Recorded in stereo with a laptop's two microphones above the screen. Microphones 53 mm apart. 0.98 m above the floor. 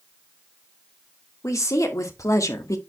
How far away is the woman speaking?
About 2 m.